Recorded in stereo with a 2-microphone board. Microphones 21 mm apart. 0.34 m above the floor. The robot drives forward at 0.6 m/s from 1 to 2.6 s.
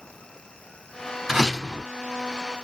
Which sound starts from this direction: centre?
A door slam, at 1.3 s.